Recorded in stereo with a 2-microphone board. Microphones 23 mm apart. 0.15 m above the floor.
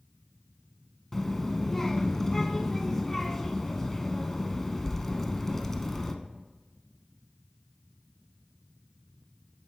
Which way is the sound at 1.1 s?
15° left (ahead or behind).